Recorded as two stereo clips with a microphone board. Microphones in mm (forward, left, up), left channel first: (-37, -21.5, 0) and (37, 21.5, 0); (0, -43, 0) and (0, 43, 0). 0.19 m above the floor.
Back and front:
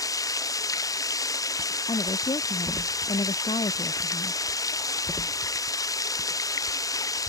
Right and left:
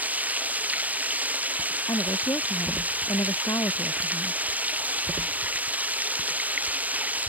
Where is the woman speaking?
140° right.